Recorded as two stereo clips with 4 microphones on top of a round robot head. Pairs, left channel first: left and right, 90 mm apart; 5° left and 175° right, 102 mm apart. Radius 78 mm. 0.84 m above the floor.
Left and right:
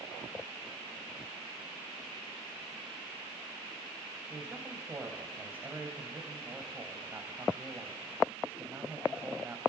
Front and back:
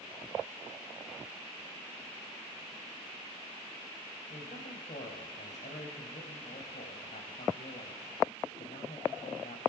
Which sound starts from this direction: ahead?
A man speaking, at 4.3 s.